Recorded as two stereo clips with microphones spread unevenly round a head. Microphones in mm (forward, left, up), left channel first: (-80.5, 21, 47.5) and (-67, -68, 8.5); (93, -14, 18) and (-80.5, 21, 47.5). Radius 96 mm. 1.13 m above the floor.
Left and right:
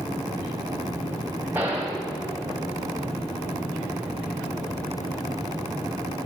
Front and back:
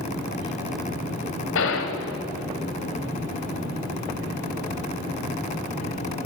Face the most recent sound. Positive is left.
turn(degrees=5)